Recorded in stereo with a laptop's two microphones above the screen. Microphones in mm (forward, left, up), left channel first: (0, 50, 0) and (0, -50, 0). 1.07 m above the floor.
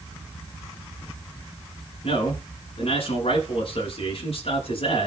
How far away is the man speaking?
About 9.5 m.